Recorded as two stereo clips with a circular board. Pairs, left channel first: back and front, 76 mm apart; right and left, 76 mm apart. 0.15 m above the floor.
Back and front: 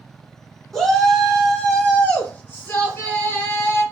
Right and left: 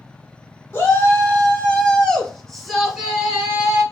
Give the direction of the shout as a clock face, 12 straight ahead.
3 o'clock.